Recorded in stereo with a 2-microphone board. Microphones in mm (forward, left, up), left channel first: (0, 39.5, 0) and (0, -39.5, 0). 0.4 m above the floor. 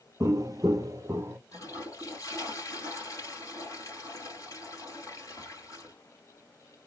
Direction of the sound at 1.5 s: 45° left (ahead or behind).